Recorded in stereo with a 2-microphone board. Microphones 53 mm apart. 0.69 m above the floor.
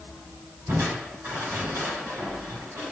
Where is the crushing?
65° right (ahead or behind), 6 m.